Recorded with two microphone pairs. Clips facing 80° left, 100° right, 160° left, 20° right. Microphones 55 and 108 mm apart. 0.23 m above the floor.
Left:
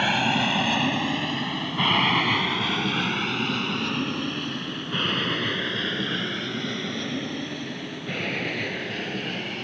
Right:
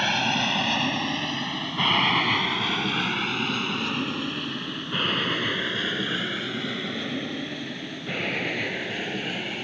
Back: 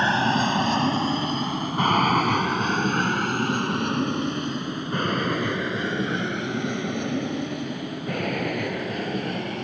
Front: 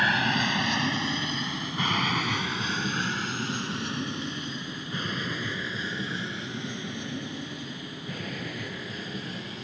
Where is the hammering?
I don't hear hammering.